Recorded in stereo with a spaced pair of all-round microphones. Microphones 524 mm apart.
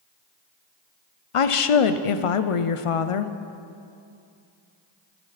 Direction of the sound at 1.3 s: 75° left (ahead or behind).